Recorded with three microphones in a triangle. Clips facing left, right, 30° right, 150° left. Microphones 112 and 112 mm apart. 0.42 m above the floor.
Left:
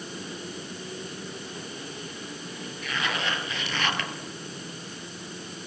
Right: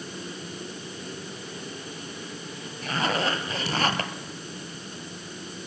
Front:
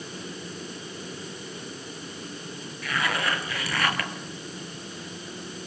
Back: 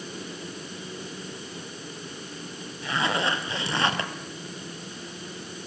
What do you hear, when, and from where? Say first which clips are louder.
2.8 s a zipper: right 5 dB, back 2 dB; 145° right, 2 m